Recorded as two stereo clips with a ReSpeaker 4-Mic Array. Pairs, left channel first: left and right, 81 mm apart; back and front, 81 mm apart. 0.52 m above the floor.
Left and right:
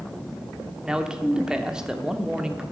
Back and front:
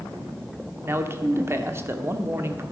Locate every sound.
0.8 s a man speaking: 15° right, 1.1 m